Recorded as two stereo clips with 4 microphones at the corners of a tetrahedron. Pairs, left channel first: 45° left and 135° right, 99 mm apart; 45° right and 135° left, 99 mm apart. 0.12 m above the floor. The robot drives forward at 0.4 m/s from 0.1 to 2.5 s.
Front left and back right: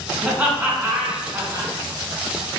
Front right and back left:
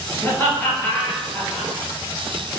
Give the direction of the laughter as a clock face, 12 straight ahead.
2 o'clock.